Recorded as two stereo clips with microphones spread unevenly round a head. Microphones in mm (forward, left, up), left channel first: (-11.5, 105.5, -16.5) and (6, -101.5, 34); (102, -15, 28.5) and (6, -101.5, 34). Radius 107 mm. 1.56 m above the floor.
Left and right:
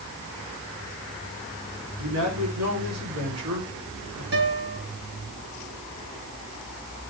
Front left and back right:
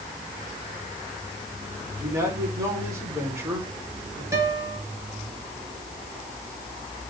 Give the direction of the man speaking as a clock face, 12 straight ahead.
2 o'clock.